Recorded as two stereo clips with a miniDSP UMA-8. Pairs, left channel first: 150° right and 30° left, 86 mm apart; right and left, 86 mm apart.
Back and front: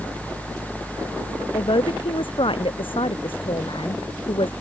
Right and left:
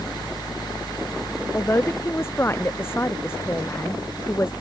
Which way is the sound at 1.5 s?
150° right.